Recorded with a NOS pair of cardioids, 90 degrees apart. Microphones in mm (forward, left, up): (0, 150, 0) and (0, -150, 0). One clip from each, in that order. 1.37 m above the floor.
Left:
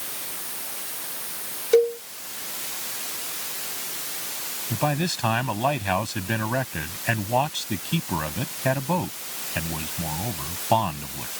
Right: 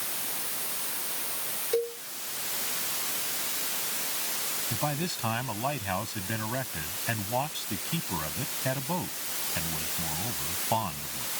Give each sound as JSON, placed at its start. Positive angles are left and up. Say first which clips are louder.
{"t": 1.7, "sound": "a cowbell", "louder": "left 11 dB", "azimuth_deg": 50}
{"t": 4.7, "sound": "a man speaking", "louder": "left 9 dB", "azimuth_deg": 50}